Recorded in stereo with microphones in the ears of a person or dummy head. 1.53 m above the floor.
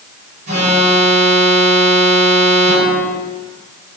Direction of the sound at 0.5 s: 75° right (ahead or behind).